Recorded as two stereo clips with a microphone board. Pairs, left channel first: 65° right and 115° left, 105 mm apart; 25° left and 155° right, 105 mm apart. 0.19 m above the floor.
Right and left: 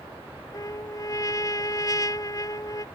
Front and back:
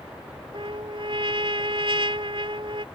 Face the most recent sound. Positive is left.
turn(degrees=-120)